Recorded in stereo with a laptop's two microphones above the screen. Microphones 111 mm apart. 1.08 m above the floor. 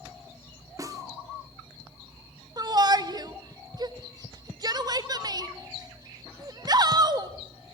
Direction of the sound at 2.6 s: 35° right (ahead or behind).